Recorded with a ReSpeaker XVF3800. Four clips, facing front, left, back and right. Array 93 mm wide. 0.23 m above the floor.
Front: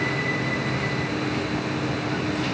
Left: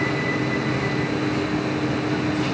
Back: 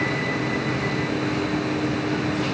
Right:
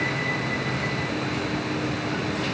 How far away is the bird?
No bird in this recording.